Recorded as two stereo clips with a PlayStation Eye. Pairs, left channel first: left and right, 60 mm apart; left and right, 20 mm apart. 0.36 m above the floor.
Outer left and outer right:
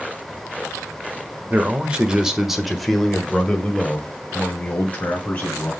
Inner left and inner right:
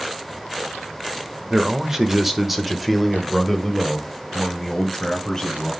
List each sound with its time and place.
1.5 s a man speaking: 25° right (ahead or behind), 1.1 m; by 5.7 s 30° left (ahead or behind), 2.5 m